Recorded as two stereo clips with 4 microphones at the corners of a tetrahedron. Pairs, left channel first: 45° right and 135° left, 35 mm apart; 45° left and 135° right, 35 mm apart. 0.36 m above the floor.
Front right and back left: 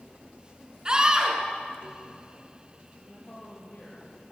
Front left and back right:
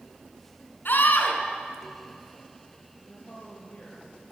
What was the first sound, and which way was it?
A scream, 70° left.